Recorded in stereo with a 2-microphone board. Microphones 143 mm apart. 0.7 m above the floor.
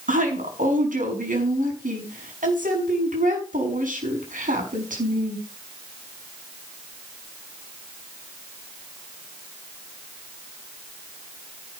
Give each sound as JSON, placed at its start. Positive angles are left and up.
{"t": 0.1, "sound": "a woman speaking", "side_deg": -80, "distance_m": 6.0}